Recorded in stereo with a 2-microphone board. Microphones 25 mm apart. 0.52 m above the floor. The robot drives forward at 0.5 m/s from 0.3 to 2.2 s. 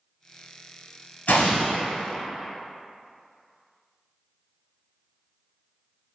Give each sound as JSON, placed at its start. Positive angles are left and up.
{"t": 1.3, "sound": "an explosion", "side_deg": 65, "distance_m": 1.1}